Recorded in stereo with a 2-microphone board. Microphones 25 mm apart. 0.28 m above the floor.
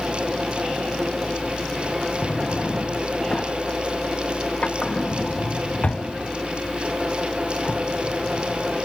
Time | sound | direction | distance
2.2 | a drawer | 50° left (ahead or behind) | 1.0 m